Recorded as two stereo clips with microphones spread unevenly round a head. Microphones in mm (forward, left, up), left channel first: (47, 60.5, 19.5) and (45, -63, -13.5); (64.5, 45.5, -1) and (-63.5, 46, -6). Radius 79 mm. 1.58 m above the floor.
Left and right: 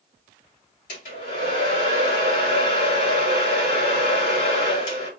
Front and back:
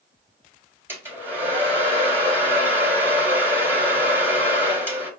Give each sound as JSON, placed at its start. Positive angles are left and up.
{"t": 0.9, "sound": "a hair dryer", "azimuth_deg": 105, "distance_m": 3.0}